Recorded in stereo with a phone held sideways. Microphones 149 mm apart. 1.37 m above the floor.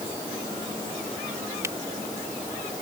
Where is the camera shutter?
20° right (ahead or behind).